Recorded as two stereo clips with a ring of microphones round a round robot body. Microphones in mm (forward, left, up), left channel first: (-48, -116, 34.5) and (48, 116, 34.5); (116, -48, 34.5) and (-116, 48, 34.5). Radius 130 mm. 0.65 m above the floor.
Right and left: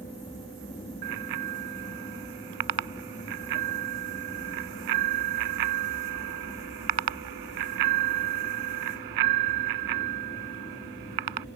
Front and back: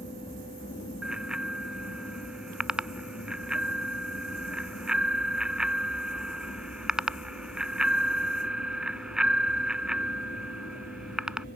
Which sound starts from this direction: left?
A bicycle bell, at 1.0 s.